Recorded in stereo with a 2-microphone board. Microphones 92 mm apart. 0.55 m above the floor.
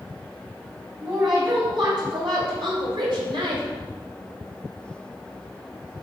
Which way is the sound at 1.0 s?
55° right (ahead or behind).